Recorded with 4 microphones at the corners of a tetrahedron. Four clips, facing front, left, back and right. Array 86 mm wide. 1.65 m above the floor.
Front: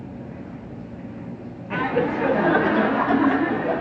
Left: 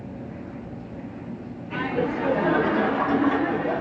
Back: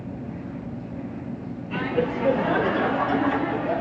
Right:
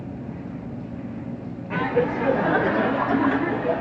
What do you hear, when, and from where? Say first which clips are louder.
1.7 s laughter: right 3 dB, front 3 dB; 25° right, 0.8 m; by 3.8 s 15° left, 1.5 m